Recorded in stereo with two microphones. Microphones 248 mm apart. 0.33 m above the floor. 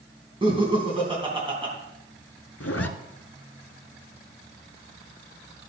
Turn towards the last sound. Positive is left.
turn(degrees=70)  # may be behind; listen again after turning